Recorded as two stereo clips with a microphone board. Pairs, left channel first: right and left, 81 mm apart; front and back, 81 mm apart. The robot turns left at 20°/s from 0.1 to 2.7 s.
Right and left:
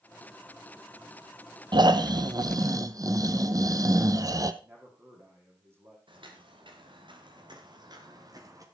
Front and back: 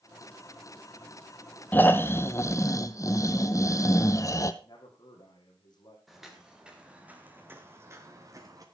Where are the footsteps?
90° left, 4 m; by 8.7 s 135° left, 3.5 m.